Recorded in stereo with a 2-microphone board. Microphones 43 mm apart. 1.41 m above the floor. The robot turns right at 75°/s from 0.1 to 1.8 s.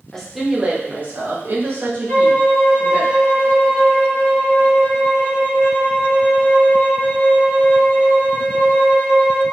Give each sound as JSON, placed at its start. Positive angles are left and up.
{"t": 0.1, "sound": "a woman speaking", "azimuth_deg": 165, "distance_m": 0.7}
{"t": 2.1, "sound": "a violin", "side_deg": 40, "distance_m": 1.5}